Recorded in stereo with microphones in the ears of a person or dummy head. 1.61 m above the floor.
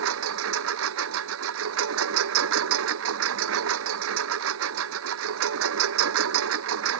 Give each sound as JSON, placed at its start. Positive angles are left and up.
{"t": 0.0, "sound": "a lawn mower", "side_deg": -70}